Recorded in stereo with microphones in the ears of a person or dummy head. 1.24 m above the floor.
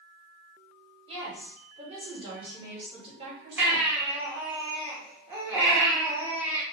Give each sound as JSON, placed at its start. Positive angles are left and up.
{"t": 1.1, "sound": "a woman speaking", "side_deg": -30, "distance_m": 1.6}
{"t": 3.6, "sound": "a baby crying", "side_deg": -15, "distance_m": 0.9}